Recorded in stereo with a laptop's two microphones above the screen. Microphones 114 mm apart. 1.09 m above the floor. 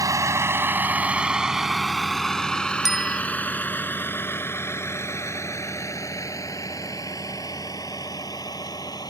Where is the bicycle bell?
5° right (ahead or behind).